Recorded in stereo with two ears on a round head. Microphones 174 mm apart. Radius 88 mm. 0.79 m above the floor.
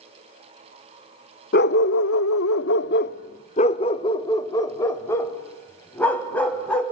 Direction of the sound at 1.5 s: 55° left (ahead or behind).